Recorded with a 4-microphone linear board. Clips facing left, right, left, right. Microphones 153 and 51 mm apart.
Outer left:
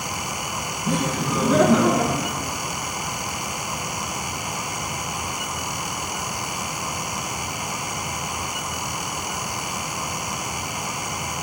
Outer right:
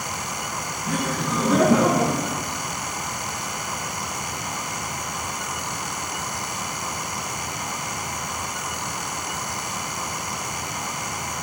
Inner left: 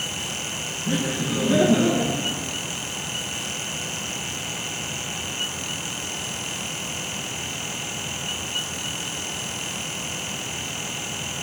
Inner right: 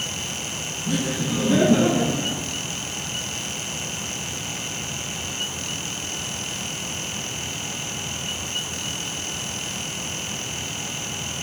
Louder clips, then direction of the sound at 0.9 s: Outer left 2 dB, even; 30° left (ahead or behind).